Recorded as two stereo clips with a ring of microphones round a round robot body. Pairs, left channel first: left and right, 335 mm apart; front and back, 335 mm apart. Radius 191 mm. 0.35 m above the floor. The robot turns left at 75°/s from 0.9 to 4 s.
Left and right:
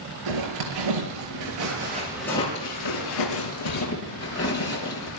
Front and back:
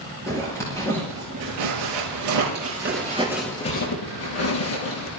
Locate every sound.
0.3 s a zipper: 80° right, 6 m; by 5.1 s 45° left, 6 m